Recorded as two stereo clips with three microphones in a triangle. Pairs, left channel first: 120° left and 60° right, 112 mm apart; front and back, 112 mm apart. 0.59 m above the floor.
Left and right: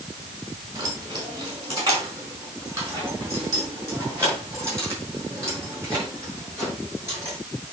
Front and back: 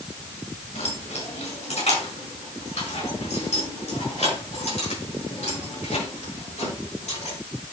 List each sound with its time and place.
0.8 s keys jangling: 5° right, 4 m; by 7.4 s 5° left, 8 m